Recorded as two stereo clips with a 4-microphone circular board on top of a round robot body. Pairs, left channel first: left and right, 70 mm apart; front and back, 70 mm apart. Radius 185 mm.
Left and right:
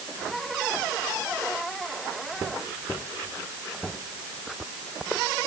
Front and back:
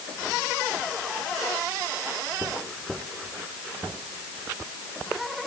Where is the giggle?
No giggle in this recording.